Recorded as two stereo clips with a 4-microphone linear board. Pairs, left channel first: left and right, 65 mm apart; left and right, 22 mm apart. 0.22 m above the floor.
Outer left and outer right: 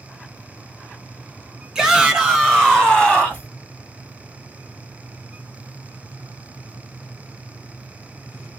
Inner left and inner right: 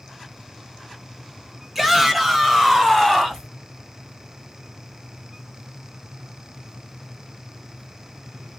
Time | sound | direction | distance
1.8 | a shout | 5° right (ahead or behind) | 2 m